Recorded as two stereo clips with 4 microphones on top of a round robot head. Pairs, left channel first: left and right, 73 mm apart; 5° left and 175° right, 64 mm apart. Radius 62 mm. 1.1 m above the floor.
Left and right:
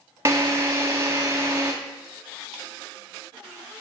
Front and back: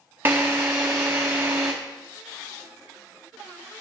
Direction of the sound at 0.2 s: 120° right.